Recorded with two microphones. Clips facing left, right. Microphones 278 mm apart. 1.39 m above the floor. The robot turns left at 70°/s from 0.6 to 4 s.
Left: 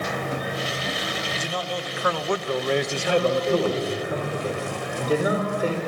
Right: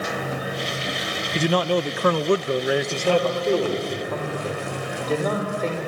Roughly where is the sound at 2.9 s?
Behind right.